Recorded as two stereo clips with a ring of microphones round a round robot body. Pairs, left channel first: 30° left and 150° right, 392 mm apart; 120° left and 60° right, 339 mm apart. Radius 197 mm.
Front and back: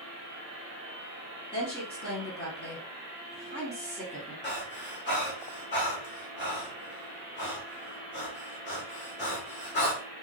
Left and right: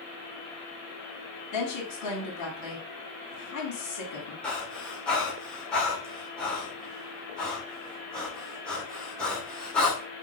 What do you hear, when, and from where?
1.5 s a woman speaking: 105° left, 1.2 m
4.4 s breathing: 35° left, 1.1 m